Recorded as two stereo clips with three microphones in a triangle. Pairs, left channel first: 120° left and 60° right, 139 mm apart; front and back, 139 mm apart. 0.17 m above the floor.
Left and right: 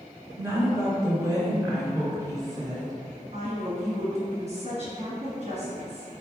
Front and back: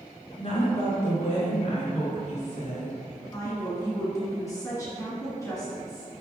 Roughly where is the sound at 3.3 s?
Ahead right.